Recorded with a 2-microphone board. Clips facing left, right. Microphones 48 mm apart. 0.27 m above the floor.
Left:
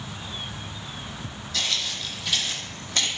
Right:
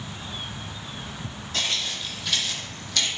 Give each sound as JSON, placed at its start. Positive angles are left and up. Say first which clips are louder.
{"t": 1.5, "sound": "footsteps", "louder": "even", "side_deg": -45, "distance_m": 0.6}